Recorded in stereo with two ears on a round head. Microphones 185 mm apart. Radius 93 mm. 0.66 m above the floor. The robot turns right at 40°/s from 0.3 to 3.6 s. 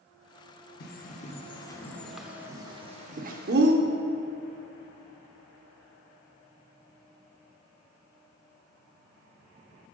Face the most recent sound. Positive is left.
turn(degrees=-60)  # may be behind; listen again after turning